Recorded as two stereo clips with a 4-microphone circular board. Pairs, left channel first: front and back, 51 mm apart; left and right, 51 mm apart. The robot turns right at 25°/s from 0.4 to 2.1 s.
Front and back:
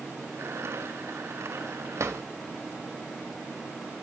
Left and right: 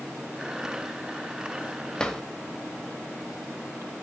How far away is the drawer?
About 1.2 m.